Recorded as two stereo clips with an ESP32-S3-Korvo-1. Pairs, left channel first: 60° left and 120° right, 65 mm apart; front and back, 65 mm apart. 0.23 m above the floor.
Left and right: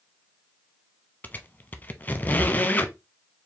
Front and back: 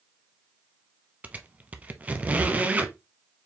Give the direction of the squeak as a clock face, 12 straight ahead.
8 o'clock.